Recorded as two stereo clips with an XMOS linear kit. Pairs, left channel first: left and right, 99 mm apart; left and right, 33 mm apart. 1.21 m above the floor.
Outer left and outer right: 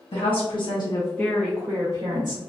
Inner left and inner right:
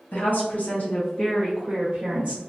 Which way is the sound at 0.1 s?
65° left (ahead or behind).